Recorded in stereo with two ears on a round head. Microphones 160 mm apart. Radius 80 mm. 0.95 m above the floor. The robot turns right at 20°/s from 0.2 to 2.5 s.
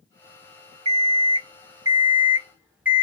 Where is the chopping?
I don't hear chopping.